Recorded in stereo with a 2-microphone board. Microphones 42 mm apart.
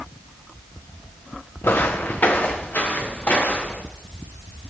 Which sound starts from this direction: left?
Footsteps, at 1.6 s.